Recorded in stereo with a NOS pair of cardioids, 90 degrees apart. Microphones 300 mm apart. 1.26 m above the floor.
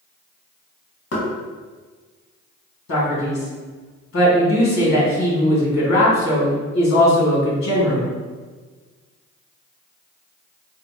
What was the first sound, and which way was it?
Knocking, 55° left.